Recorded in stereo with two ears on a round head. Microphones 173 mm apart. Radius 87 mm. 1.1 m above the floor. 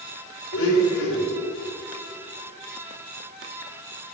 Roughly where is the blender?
Left.